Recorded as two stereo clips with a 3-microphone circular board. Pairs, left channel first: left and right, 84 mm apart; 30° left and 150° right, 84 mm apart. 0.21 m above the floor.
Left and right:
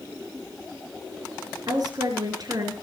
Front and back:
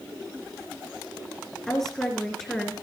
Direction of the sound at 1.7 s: 55° right.